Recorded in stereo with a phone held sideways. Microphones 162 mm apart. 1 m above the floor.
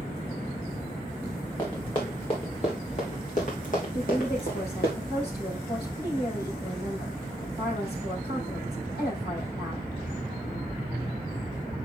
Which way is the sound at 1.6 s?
25° left (ahead or behind).